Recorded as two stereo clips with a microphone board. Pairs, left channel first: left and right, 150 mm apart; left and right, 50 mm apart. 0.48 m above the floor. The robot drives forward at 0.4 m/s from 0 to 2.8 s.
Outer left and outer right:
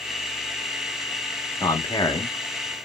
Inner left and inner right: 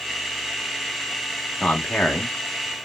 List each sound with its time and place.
1.6 s a man speaking: 25° left (ahead or behind), 1.0 m; by 2.8 s 30° left (ahead or behind), 0.8 m